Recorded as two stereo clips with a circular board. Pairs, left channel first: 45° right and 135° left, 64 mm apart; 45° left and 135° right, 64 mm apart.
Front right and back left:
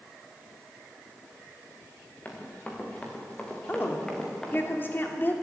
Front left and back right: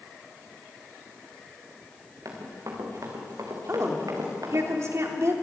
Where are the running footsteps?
110° right, 5 m; by 4.7 s 130° right, 4.5 m.